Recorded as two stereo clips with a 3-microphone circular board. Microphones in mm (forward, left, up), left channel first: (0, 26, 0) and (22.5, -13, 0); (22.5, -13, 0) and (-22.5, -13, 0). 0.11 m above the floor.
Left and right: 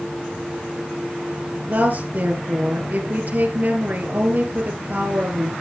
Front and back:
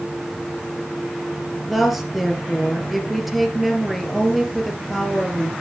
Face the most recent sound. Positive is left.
turn(degrees=-90)